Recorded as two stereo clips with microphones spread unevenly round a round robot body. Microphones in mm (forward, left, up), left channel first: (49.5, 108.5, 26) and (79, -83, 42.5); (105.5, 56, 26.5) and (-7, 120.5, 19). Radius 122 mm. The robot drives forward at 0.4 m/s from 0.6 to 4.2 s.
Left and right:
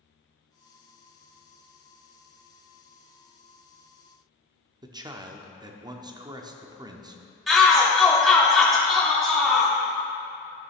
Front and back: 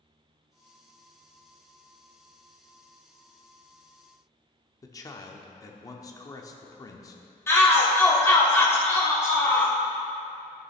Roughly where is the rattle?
No rattle in this recording.